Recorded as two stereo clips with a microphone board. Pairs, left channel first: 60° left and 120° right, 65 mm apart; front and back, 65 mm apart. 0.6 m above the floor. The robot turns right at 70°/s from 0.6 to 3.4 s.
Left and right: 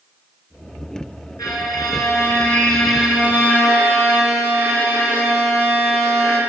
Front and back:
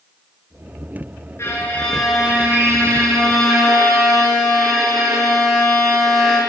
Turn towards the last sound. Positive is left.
turn(degrees=-175)